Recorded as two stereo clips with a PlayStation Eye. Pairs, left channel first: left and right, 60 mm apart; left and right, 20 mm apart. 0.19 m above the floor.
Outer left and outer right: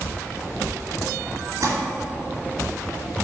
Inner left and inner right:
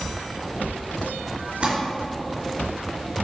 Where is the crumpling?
60° right (ahead or behind), 3 m.